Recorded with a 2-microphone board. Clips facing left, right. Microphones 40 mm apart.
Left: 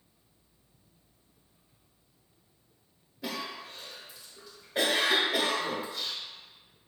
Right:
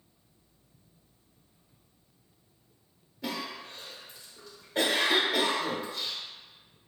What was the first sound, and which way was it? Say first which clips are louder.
A cough: right 1 dB; 5° left (ahead or behind).